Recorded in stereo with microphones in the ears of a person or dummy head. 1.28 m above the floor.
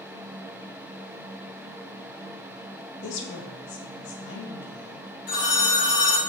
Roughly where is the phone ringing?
Left.